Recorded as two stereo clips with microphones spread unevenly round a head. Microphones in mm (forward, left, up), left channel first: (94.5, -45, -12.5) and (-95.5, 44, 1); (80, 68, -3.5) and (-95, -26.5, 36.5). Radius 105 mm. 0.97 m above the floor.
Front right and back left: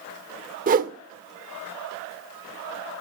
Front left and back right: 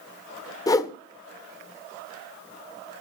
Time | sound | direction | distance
0.7 | a whoosh | 105° left | 1.1 m